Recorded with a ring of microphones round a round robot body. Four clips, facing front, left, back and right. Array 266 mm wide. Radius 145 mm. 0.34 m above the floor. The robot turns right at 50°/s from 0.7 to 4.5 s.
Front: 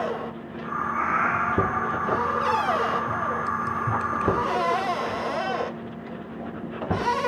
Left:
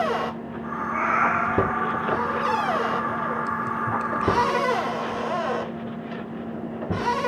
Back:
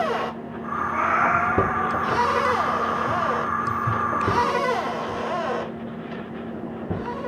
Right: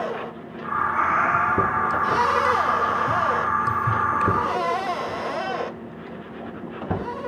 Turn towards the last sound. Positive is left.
turn(degrees=-40)